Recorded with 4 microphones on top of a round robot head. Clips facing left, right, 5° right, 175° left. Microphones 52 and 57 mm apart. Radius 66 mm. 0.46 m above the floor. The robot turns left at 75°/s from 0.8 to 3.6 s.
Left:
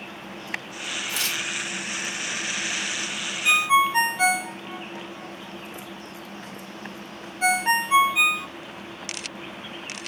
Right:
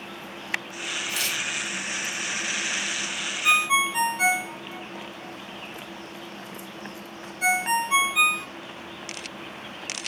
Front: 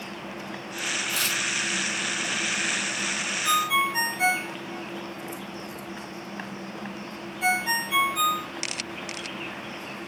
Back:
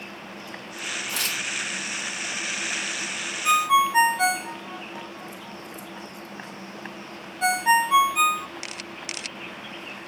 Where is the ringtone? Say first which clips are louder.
Left 2 dB, back 5 dB; 160° left, 1.5 m; by 8.5 s 145° left, 1.5 m.